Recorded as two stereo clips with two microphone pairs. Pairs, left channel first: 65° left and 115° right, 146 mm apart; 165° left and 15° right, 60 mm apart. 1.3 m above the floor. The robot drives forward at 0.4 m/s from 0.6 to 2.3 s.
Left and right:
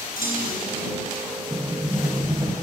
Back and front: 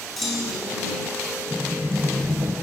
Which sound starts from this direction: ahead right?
A sliding door, at 1.5 s.